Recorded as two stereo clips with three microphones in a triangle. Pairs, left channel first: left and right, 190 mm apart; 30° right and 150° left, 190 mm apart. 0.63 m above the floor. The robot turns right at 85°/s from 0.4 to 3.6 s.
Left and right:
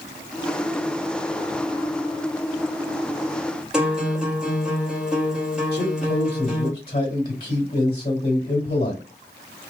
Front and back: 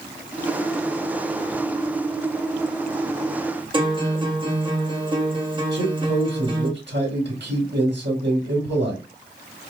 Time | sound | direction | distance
3.7 | a guitar | 175° right | 1.3 m
5.7 | a man speaking | 135° left | 2 m